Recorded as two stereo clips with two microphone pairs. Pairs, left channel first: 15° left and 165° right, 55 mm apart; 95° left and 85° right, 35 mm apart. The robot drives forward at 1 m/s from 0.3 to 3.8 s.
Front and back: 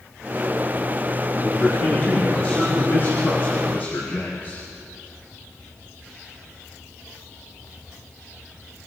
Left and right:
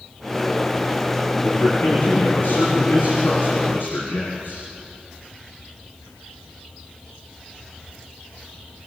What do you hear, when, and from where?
1.4 s a man speaking: 65° left, 10 m; by 4.7 s 75° left, 9 m